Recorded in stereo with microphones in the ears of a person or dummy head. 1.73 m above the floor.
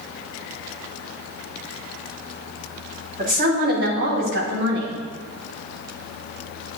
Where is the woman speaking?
50° right (ahead or behind), 2.5 m; by 4.9 s 75° right (ahead or behind), 2.5 m.